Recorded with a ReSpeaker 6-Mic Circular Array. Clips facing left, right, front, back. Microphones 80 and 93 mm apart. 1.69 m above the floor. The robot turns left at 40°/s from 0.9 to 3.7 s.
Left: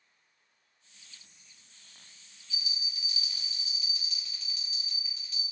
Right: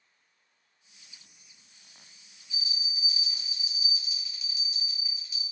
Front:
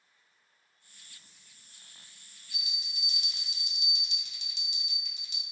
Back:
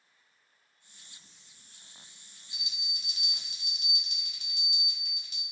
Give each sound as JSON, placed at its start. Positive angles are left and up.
{"t": 2.5, "sound": "a bell", "azimuth_deg": -120, "distance_m": 0.8}